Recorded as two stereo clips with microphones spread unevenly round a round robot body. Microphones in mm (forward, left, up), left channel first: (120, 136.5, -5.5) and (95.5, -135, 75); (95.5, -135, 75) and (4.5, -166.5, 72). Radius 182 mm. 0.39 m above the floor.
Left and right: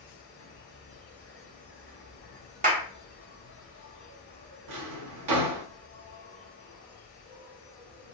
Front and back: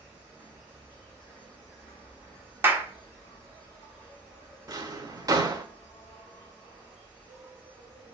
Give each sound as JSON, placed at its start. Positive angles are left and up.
{"t": 0.0, "sound": "an insect", "azimuth_deg": 125, "distance_m": 2.5}
{"t": 2.6, "sound": "a clap", "azimuth_deg": -165, "distance_m": 0.8}
{"t": 4.7, "sound": "a drawer", "azimuth_deg": -115, "distance_m": 0.9}